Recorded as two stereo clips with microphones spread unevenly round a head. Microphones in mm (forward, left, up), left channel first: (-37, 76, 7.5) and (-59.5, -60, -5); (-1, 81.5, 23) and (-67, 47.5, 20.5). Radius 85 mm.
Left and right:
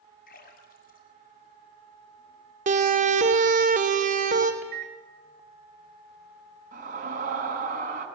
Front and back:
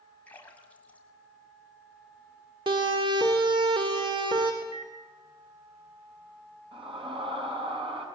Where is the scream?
130° right, 7 m.